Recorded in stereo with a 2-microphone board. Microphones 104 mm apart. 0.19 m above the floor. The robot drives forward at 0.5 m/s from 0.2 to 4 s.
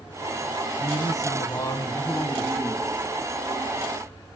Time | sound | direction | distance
0.8 | a man speaking | 35° left (ahead or behind) | 1.2 m